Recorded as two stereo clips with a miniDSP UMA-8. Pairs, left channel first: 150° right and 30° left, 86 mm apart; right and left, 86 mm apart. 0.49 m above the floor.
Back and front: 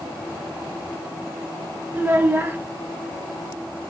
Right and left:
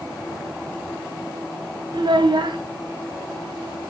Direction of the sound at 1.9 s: 95° left.